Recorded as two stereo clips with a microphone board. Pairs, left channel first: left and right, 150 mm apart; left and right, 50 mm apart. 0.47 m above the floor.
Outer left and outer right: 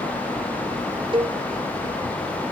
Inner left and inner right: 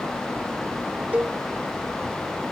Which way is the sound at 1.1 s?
35° right (ahead or behind).